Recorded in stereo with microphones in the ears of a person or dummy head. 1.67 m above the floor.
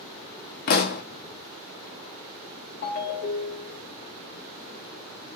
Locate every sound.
0.7 s a pop: 50° left (ahead or behind), 0.9 m
2.8 s a ringtone: 60° left (ahead or behind), 1.4 m